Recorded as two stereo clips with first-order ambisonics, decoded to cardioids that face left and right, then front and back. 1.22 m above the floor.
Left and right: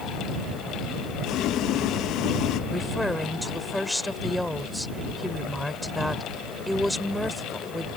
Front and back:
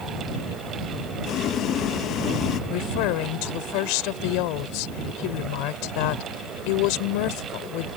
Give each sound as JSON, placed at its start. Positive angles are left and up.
{"t": 1.2, "sound": "boiling", "azimuth_deg": 50}
{"t": 2.7, "sound": "a woman speaking", "azimuth_deg": 5}